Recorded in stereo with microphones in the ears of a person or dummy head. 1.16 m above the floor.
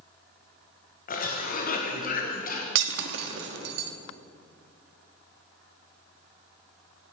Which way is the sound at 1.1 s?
45° left (ahead or behind).